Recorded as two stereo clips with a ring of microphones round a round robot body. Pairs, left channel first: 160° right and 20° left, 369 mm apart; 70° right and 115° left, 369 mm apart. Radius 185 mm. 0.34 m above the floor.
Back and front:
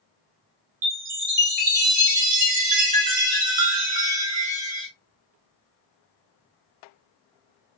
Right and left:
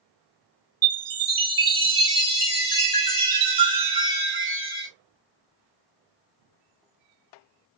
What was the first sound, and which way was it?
A chime, 55° left.